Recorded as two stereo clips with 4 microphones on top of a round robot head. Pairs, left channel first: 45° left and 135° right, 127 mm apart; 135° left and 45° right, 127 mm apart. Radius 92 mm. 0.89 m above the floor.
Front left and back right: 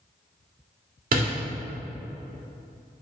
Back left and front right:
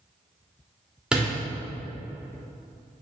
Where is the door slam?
130° right, 2.5 m.